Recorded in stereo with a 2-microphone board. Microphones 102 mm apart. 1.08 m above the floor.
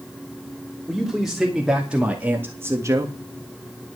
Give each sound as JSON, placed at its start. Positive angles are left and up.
{"t": 0.9, "sound": "a man speaking", "side_deg": 0, "distance_m": 3.0}